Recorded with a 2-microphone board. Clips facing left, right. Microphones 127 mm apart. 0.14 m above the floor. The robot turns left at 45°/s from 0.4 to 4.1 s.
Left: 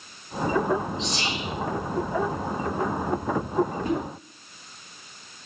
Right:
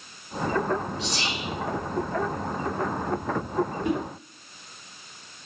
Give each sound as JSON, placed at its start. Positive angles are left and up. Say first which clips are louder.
{"t": 1.0, "sound": "whispering", "louder": "left 1 dB", "side_deg": 30, "distance_m": 1.3}
{"t": 3.8, "sound": "a whoosh", "louder": "even", "side_deg": 30, "distance_m": 1.8}